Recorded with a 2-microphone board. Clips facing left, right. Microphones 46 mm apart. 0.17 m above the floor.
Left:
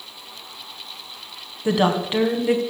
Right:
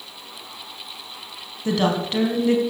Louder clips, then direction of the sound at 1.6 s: Left 2 dB; 15° left (ahead or behind).